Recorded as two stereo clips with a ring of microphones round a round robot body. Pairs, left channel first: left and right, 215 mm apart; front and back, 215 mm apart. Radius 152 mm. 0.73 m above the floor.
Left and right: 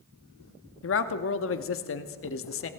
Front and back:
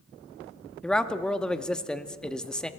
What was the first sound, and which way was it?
A man speaking, 85° left.